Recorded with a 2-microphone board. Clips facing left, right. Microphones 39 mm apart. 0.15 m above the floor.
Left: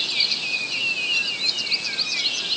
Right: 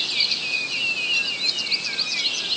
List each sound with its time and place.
Only background noise.